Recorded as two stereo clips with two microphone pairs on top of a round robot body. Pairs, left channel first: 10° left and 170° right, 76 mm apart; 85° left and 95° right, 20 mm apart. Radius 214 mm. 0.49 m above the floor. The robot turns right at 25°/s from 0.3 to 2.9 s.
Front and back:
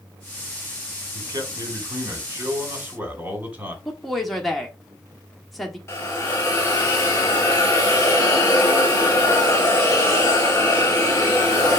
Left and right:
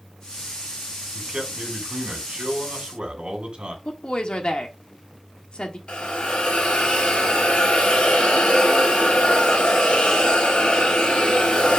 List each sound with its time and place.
1.1 s a man speaking: 145° right, 2 m; by 3.8 s 100° right, 2 m
3.9 s a woman speaking: 95° left, 1.4 m
5.9 s a hiss: 65° left, 0.7 m